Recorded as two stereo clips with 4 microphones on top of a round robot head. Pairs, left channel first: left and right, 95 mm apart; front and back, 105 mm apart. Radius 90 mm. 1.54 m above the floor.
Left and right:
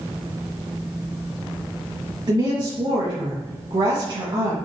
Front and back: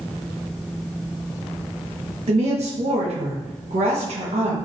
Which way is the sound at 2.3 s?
145° right.